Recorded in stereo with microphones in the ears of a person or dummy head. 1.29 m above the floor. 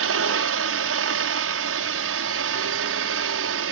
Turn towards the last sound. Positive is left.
turn(degrees=-60)  # may be behind; listen again after turning